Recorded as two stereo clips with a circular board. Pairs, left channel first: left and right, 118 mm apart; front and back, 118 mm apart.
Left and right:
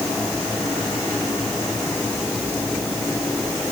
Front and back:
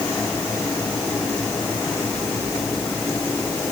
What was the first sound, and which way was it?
Only background noise.